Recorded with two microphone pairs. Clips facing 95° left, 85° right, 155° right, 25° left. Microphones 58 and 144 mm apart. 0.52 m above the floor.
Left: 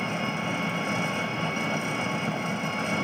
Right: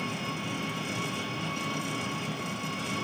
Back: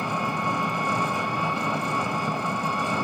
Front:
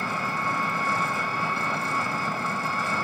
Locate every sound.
0.0 s an engine running: 135° left, 1.3 m